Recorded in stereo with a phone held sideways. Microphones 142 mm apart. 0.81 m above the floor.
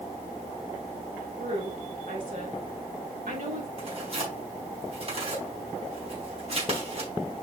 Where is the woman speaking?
75° right (ahead or behind), 4.5 m.